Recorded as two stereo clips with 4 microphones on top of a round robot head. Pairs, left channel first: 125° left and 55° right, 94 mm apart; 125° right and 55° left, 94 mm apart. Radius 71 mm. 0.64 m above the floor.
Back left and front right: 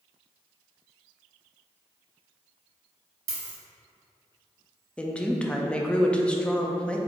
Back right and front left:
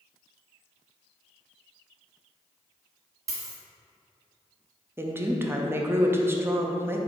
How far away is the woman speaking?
About 0.6 m.